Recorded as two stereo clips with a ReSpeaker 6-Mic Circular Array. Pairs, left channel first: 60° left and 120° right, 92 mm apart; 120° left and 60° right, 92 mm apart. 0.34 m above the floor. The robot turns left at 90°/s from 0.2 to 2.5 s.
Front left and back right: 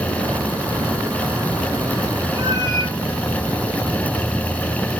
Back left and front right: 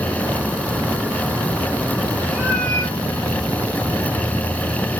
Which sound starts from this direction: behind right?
A cat meowing, at 2.3 s.